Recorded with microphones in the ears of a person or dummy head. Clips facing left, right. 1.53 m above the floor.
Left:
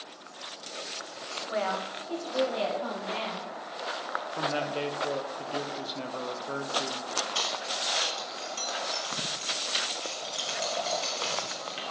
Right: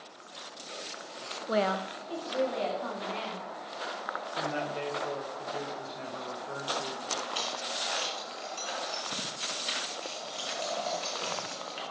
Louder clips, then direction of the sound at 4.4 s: Left 3 dB; 55° left (ahead or behind).